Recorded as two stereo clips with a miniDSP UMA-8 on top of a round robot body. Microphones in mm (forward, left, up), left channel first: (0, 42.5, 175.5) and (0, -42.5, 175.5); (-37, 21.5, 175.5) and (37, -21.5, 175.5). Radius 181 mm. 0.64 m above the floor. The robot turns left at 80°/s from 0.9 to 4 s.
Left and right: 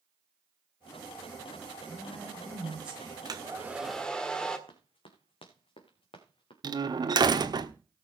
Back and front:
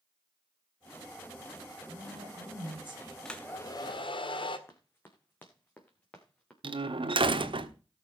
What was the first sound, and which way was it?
A woman speaking, 15° left.